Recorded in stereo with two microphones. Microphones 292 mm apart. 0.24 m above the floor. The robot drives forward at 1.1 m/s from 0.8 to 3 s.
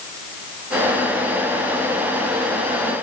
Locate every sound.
Only background noise.